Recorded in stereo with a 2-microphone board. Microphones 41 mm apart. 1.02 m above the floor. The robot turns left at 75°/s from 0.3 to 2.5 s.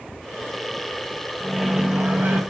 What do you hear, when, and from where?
1.4 s a microwave: 10° left, 0.7 m; by 2.4 s 65° right, 0.7 m